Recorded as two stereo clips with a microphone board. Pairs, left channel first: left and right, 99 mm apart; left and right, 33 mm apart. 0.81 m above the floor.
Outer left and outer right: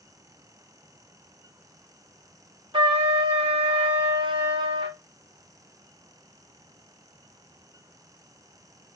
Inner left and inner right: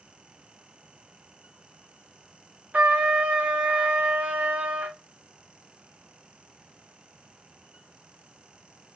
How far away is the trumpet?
About 0.8 m.